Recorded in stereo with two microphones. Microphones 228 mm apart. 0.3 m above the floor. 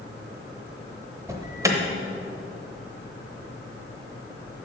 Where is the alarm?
15° right (ahead or behind), 0.9 m.